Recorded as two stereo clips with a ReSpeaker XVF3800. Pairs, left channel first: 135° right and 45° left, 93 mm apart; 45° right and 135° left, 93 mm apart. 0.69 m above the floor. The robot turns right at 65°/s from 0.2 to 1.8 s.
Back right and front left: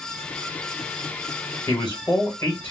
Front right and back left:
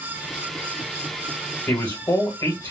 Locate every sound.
1.7 s a man speaking: 90° right, 1.3 m; by 2.7 s 80° right, 1.3 m